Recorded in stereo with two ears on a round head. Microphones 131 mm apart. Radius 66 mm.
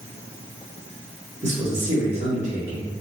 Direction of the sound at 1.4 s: 45° right (ahead or behind).